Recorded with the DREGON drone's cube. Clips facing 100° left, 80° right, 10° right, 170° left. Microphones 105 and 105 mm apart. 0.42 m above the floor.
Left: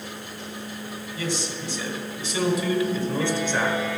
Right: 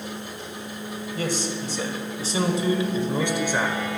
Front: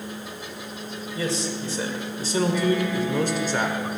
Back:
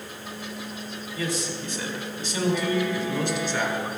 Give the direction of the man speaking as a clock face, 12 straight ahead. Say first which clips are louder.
Right 2 dB, front 2 dB; 2 o'clock.